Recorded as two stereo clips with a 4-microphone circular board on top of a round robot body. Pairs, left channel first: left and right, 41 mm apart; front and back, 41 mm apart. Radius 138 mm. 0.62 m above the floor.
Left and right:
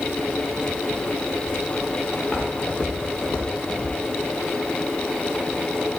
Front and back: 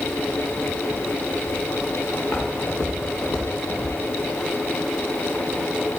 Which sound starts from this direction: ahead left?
Footsteps, at 2.2 s.